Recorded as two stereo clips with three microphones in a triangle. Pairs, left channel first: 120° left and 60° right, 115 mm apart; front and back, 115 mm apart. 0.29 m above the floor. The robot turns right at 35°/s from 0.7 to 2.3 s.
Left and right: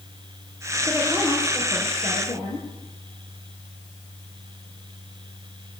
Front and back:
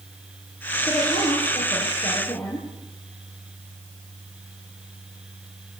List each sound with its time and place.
0.8 s a woman speaking: 20° left, 9.5 m; by 2.7 s 70° left, 9.5 m